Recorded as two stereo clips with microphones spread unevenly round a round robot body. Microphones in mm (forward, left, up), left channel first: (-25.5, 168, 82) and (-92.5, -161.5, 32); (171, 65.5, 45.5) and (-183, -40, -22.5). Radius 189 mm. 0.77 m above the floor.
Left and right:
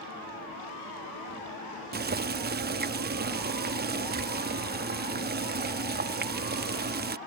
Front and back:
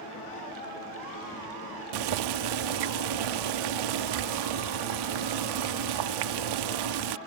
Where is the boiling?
160° right.